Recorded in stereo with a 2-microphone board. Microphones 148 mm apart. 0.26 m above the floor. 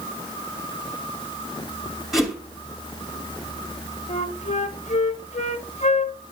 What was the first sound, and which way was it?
A whoosh, centre (ahead or behind).